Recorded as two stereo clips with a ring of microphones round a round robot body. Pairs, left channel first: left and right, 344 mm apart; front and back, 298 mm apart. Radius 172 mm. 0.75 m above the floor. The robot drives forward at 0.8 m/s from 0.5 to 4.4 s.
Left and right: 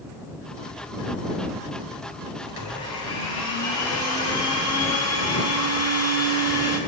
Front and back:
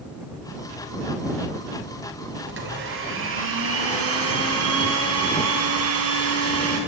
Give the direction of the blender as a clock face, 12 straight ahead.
8 o'clock.